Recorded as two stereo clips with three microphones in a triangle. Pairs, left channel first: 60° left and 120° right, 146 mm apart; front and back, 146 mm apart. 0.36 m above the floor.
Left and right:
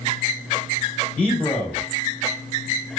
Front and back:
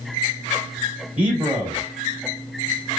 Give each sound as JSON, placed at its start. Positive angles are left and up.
{"t": 1.2, "sound": "a man speaking", "azimuth_deg": 125, "distance_m": 1.3}